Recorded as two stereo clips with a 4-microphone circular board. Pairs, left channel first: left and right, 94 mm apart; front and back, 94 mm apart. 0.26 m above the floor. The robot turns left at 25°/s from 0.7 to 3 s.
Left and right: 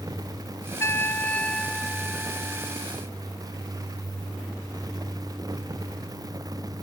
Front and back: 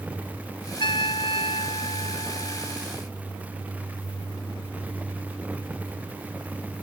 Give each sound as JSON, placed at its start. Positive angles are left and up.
{"t": 0.8, "sound": "a trumpet", "azimuth_deg": 30}